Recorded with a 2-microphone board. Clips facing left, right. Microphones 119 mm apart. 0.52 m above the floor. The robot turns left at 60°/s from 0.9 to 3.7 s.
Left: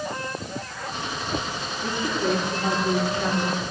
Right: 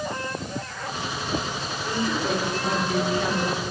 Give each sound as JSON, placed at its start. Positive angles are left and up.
{"t": 1.8, "sound": "a woman speaking", "azimuth_deg": 85, "distance_m": 4.5}